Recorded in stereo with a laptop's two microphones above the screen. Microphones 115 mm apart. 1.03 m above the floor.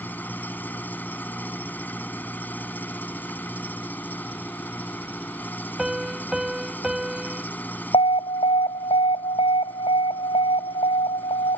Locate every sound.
0.0 s an engine running: 15° left (ahead or behind)
5.8 s a piano: 5° right (ahead or behind)
7.9 s an alarm: 65° left (ahead or behind)